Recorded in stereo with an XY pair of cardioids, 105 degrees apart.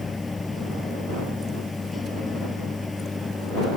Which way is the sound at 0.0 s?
20° left.